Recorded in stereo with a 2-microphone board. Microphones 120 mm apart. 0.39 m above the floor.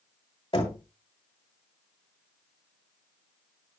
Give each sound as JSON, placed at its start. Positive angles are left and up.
{"t": 0.5, "sound": "knocking", "side_deg": 50, "distance_m": 1.9}